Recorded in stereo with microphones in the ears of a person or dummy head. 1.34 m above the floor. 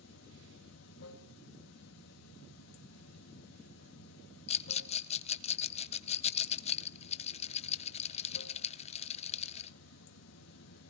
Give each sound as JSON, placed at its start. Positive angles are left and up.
{"t": 0.0, "sound": "running water", "side_deg": 80, "distance_m": 1.9}
{"t": 4.5, "sound": "a rattle", "side_deg": 35, "distance_m": 0.5}